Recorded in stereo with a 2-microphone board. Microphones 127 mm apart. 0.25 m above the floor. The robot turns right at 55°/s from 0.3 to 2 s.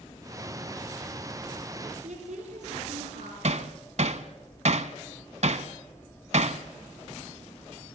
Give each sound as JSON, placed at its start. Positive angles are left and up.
{"t": 2.0, "sound": "a woman speaking", "side_deg": -65, "distance_m": 5.0}
{"t": 3.4, "sound": "hammering", "side_deg": -60, "distance_m": 0.8}